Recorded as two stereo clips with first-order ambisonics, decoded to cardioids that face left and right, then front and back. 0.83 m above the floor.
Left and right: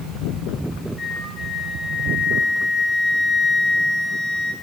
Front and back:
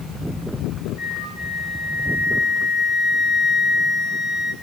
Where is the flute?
160° left, 5 m.